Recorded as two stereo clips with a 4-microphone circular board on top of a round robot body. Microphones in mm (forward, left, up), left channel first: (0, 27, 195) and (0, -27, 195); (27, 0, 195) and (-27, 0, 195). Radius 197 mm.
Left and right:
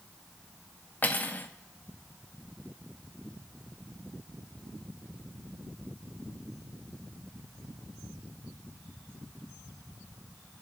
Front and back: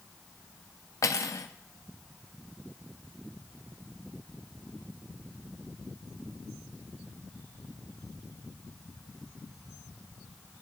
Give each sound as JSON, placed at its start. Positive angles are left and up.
{"t": 1.0, "sound": "cutlery clinking", "azimuth_deg": 30, "distance_m": 0.7}